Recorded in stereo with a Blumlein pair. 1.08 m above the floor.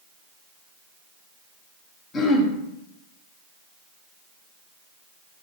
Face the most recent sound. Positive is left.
turn(degrees=20)